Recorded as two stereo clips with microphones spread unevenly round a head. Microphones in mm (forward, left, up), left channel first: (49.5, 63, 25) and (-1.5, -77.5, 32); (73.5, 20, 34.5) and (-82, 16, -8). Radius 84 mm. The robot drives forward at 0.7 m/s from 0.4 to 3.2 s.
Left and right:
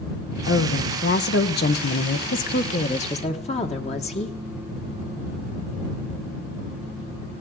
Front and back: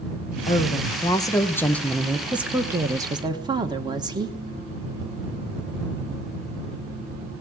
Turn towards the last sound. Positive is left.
turn(degrees=120)